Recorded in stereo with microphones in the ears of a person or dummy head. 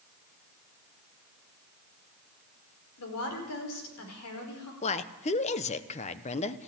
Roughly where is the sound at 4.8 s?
Left.